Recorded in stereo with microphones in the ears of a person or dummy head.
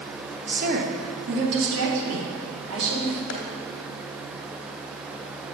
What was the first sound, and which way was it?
A woman speaking, 35° right (ahead or behind).